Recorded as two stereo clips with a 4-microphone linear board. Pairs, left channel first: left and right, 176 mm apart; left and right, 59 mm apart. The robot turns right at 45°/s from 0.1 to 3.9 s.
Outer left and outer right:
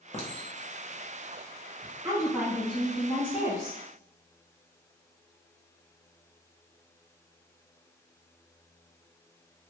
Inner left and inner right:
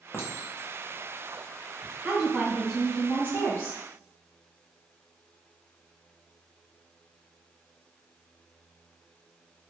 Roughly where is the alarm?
I don't hear an alarm.